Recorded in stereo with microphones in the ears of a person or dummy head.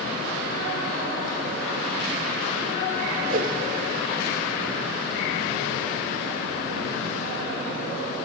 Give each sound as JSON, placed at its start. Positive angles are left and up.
{"t": 3.3, "sound": "a whoosh", "side_deg": -50, "distance_m": 1.4}